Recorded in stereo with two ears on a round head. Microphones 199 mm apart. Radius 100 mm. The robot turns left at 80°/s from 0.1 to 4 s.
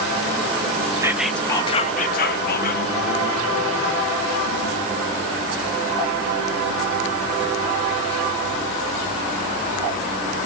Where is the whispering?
160° right, 0.6 m; by 2.8 s 55° left, 0.6 m.